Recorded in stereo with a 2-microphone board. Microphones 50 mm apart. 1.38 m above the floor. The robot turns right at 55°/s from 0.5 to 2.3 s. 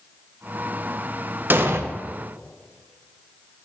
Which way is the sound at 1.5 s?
45° right (ahead or behind).